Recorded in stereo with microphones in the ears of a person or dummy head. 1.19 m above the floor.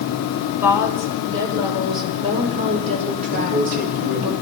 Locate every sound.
0.6 s a woman speaking: 10° right (ahead or behind), 5.5 m; by 4.3 s 50° right (ahead or behind), 4.5 m
3.3 s a man speaking: 45° right (ahead or behind), 4 m